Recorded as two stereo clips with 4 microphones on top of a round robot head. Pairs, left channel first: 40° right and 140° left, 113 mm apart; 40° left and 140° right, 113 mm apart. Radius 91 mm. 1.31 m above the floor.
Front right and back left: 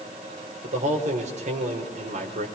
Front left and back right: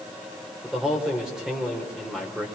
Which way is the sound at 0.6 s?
135° left.